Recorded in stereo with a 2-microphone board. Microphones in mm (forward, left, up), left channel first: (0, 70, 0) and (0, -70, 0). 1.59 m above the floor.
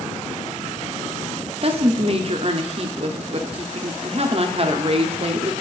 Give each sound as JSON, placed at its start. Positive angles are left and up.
{"t": 1.6, "sound": "a woman speaking", "side_deg": -45, "distance_m": 0.6}